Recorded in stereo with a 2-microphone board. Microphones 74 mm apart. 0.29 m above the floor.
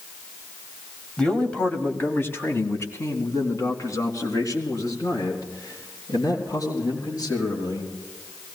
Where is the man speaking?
10° left (ahead or behind), 1.7 m; by 7.9 s 60° left (ahead or behind), 7 m.